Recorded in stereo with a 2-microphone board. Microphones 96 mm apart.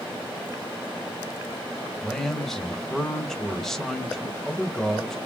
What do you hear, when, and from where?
2.0 s a man speaking: 5° left (ahead or behind), 1.3 m